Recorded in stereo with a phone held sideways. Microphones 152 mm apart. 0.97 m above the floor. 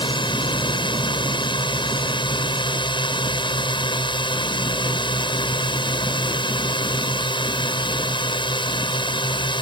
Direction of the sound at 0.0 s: 35° left (ahead or behind).